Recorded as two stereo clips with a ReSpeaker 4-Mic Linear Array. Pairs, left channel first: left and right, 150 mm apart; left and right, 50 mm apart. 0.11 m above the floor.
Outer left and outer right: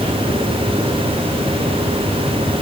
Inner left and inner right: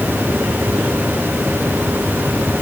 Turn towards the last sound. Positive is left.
No sound to turn to.